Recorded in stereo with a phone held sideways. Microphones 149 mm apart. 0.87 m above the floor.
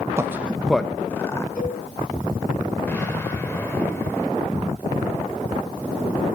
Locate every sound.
0.2 s a man speaking: 20° right (ahead or behind), 0.6 m; by 1.4 s 20° left (ahead or behind), 1.0 m
1.6 s a cowbell: 85° left, 7.5 m
2.9 s an explosion: 15° left (ahead or behind), 3 m